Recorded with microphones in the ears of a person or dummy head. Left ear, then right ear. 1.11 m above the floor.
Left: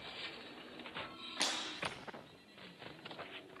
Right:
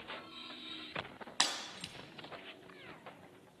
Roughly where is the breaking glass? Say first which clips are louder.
Right 2 dB; right.